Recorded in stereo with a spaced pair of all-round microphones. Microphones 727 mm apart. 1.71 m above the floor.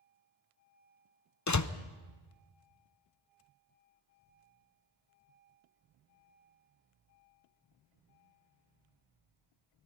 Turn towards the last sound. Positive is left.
turn(degrees=25)  # may be behind; listen again after turning